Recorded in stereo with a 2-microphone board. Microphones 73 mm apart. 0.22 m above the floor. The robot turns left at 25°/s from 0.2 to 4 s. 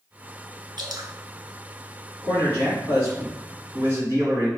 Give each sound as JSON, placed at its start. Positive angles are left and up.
{"t": 0.8, "sound": "dripping", "side_deg": -70, "distance_m": 0.8}
{"t": 2.2, "sound": "a man speaking", "azimuth_deg": -55, "distance_m": 1.2}